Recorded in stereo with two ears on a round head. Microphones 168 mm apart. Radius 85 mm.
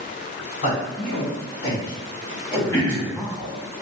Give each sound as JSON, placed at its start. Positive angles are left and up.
{"t": 0.6, "sound": "a man speaking", "side_deg": 55, "distance_m": 1.9}
{"t": 2.7, "sound": "throat clearing", "side_deg": 15, "distance_m": 1.0}